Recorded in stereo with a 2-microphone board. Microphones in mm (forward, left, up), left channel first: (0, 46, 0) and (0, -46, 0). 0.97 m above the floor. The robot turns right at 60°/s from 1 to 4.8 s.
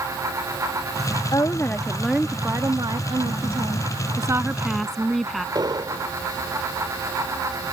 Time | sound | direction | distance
1.3 | a woman speaking | 135° left | ?
4.2 | a woman speaking | 35° right | ?
5.5 | an explosion | 45° right (ahead or behind) | ?